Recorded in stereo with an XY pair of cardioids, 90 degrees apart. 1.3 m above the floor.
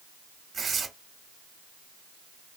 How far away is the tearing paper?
About 0.9 m.